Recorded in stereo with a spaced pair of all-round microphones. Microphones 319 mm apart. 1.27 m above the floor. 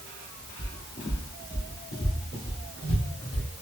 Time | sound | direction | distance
0.6 | footsteps | 35° left (ahead or behind) | 1.4 m